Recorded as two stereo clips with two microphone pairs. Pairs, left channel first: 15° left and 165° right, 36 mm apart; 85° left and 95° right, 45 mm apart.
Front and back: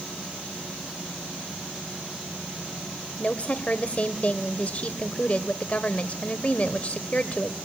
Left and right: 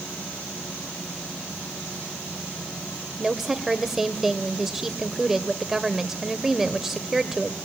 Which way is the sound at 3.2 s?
15° right.